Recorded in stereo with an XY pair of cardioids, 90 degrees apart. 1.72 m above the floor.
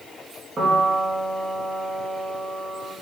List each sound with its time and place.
0.6 s a piano: 40° right, 2.5 m